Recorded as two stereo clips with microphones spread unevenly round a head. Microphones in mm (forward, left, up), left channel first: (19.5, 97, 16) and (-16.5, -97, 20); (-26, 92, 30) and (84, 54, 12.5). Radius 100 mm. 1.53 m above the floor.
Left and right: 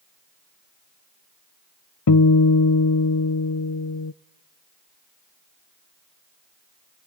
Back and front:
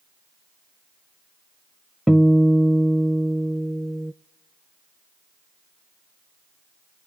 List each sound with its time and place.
2.1 s a guitar: 75° left, 0.6 m